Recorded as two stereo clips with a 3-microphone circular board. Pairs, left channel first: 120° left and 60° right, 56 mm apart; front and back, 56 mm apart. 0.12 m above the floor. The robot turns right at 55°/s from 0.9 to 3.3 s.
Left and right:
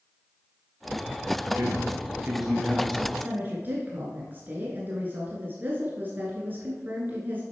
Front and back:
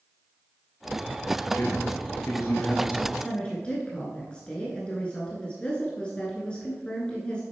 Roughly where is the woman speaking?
Right.